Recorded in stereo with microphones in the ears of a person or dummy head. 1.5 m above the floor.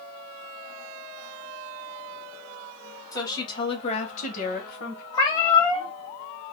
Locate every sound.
3.1 s a woman speaking: 20° left (ahead or behind), 1.6 m; by 5.0 s 65° left (ahead or behind), 1.4 m
5.1 s a cat meowing: 20° left (ahead or behind), 0.9 m